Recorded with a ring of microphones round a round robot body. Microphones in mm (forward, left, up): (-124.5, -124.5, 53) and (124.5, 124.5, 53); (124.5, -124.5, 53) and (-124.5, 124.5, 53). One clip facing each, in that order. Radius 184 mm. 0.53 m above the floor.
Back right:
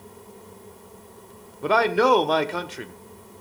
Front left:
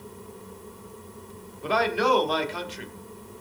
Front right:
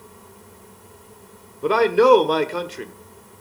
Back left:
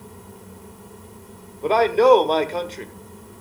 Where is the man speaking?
115° right, 1.4 m.